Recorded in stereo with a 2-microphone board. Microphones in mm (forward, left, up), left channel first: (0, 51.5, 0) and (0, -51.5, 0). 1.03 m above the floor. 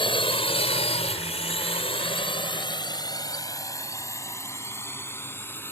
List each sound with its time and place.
0.0 s a drone: 55° left (ahead or behind); by 5.7 s 20° left (ahead or behind)